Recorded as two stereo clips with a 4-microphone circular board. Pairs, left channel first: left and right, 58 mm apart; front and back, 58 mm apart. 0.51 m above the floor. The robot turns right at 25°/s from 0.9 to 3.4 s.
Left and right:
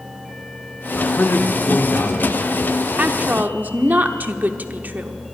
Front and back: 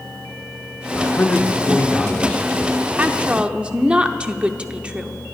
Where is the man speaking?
30° left, 1.0 m; by 2.9 s 80° left, 1.0 m.